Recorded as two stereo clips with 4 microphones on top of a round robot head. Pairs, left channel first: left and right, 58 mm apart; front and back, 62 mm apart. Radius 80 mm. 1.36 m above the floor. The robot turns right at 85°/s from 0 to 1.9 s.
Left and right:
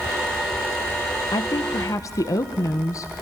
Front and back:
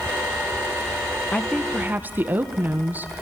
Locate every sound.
1.3 s a woman speaking: 70° left, 1.5 m; by 3.2 s 120° left, 1.5 m